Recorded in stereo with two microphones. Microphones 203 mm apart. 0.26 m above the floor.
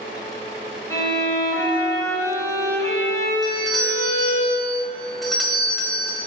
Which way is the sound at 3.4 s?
Centre (ahead or behind).